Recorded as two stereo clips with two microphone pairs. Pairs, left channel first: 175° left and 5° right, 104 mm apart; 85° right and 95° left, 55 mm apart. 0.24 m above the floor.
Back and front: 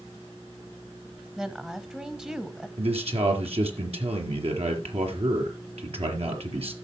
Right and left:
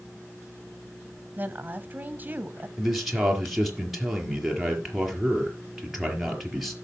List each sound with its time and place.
1.4 s a woman speaking: 70° left, 1.5 m
2.8 s a man speaking: 10° left, 5 m